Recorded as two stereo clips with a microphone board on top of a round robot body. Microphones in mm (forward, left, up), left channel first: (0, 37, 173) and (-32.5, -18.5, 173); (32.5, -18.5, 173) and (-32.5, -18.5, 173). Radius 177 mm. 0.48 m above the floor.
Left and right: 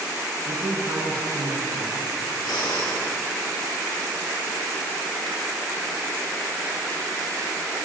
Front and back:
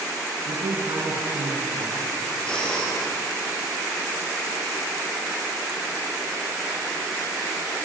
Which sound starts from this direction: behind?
A man speaking, at 0.5 s.